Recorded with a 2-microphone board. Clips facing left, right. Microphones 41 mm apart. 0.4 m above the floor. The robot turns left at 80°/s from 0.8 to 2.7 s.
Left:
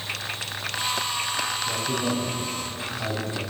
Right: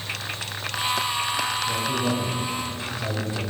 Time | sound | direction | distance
1.7 | a man speaking | 145° left | 4 m